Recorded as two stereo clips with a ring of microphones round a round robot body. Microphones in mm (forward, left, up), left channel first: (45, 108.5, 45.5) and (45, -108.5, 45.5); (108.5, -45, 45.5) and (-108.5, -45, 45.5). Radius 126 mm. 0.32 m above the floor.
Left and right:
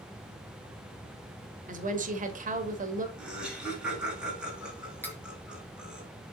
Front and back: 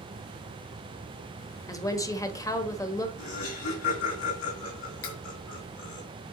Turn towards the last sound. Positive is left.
turn(degrees=10)